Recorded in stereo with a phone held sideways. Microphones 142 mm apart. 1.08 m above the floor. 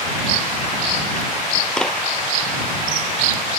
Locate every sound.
1.8 s a clap: 5° left (ahead or behind)